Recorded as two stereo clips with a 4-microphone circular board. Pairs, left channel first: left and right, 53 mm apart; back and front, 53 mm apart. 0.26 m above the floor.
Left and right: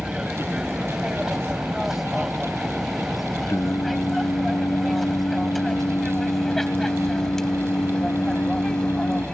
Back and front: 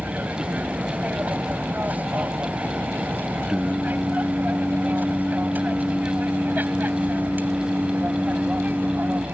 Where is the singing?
75° left.